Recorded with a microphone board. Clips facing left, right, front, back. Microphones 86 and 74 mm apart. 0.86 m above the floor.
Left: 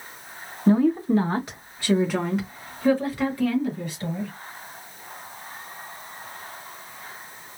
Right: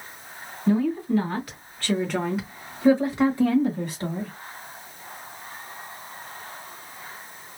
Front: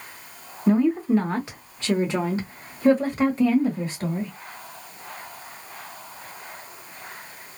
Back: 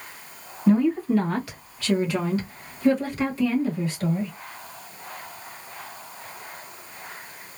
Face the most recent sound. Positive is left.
turn(degrees=-60)